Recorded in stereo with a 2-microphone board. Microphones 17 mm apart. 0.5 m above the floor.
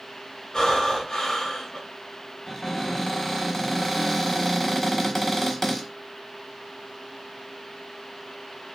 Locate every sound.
0.5 s breathing: 50° left (ahead or behind), 1.1 m
2.5 s a cupboard door: 30° left (ahead or behind), 1.3 m